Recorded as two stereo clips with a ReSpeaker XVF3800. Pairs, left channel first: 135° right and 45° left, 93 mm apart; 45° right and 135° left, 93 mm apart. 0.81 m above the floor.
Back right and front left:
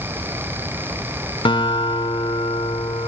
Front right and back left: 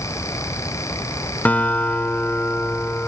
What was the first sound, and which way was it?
A guitar, 115° right.